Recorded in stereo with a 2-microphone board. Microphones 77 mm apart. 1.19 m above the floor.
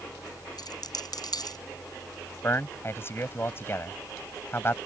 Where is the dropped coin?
70° left (ahead or behind).